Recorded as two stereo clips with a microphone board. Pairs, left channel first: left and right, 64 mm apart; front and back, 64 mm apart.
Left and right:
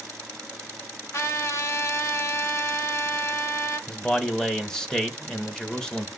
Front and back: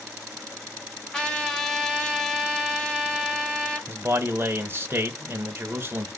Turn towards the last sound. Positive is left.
turn(degrees=160)